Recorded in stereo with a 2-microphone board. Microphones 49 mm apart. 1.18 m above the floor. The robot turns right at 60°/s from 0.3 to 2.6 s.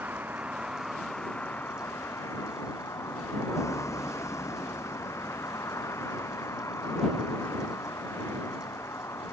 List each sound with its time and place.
0.0 s a vehicle: 35° right; by 9.3 s 100° left